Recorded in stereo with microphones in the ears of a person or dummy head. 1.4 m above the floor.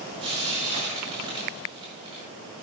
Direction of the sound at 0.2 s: 30° right (ahead or behind).